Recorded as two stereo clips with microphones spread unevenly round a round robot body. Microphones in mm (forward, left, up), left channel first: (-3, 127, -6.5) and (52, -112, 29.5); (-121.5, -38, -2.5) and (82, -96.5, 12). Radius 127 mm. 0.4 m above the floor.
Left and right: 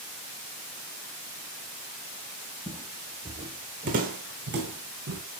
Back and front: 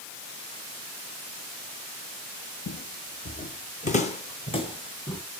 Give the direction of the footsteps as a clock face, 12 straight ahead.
6 o'clock.